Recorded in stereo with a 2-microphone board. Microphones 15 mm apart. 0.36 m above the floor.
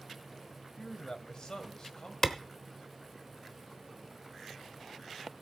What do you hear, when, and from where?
0.8 s a man speaking: 50° left (ahead or behind), 1.9 m
2.2 s a clap: 30° left (ahead or behind), 1.0 m